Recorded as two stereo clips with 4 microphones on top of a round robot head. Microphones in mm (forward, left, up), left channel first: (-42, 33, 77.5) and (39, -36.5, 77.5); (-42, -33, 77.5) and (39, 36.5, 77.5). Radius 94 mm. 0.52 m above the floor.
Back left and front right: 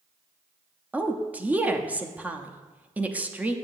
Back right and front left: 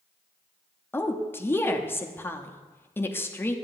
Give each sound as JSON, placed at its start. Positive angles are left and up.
{"t": 0.9, "sound": "a woman speaking", "azimuth_deg": -100, "distance_m": 0.7}